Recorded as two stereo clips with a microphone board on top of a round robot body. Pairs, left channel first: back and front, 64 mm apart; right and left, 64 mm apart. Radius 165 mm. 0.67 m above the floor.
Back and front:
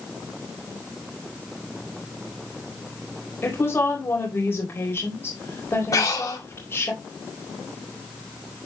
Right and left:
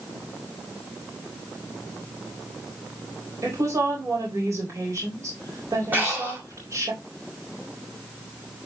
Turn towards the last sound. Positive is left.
turn(degrees=150)